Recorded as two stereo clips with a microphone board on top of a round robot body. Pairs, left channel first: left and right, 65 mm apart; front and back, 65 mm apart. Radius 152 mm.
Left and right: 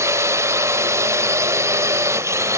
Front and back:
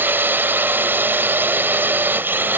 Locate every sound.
0.0 s a drone: 130° right